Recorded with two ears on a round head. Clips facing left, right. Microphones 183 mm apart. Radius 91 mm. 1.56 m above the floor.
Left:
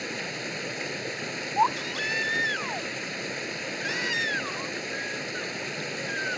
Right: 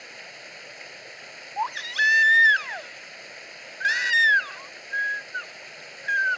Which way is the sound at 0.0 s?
70° left (ahead or behind).